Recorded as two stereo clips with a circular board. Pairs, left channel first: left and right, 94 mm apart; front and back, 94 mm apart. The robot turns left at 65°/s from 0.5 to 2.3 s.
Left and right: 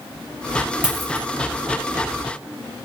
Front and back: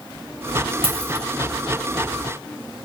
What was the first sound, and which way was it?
A dropped coin, 170° right.